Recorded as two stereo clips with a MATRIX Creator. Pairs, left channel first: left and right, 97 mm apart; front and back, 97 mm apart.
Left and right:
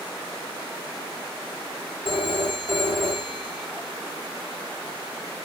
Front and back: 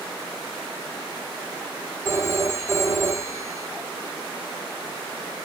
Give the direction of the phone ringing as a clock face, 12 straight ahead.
8 o'clock.